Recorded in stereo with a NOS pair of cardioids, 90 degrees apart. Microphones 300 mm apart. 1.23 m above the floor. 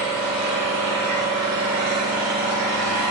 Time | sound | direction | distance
0.0 | an engine running | 65° right | 1.6 m